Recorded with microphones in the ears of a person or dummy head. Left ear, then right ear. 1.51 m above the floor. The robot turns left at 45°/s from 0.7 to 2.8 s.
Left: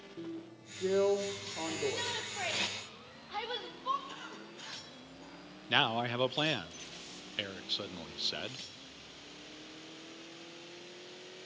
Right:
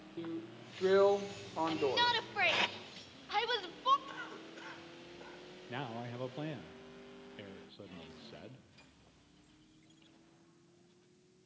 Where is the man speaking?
60° left (ahead or behind), 0.6 m.